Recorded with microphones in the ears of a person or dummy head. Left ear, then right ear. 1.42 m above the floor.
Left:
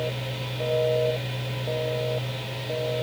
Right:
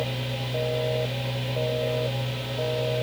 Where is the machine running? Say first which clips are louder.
Even; 50° right (ahead or behind), 2.5 m.